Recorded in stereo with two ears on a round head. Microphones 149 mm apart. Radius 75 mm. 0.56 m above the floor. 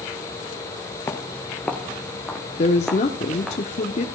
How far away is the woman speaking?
About 1.0 m.